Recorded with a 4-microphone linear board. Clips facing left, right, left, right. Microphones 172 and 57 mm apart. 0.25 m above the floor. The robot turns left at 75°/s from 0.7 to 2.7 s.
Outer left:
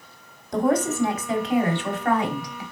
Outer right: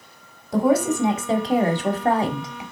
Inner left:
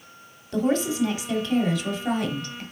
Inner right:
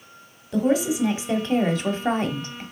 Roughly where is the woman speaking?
Ahead.